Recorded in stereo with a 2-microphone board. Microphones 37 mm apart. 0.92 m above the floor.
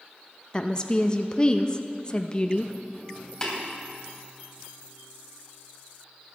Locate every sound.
0.5 s a woman speaking: 25° left (ahead or behind), 0.6 m
3.4 s tapping: 20° left (ahead or behind), 3 m